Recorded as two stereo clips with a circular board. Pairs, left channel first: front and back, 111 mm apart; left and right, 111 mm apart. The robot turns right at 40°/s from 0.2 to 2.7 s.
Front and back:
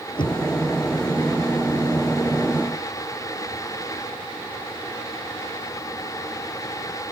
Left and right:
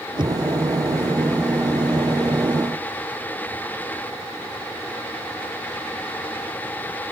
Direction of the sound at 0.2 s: 45° right.